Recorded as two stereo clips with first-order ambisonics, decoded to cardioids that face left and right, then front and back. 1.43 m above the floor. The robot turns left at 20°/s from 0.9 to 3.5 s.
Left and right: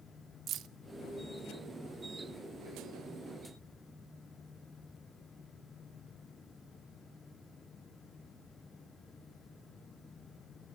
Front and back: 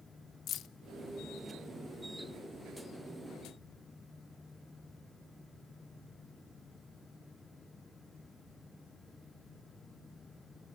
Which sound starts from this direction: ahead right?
Keys jangling, at 0.5 s.